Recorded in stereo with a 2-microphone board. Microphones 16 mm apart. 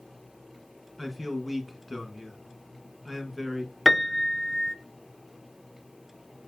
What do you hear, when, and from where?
1.0 s a man speaking: 5° right (ahead or behind), 1.3 m
3.9 s a piano: 5° left (ahead or behind), 0.5 m